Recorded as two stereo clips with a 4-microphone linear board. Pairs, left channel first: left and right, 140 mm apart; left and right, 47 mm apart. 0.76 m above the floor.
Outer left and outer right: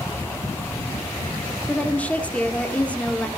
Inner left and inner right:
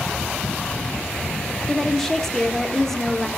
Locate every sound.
1.7 s a woman speaking: 10° left (ahead or behind), 1.6 m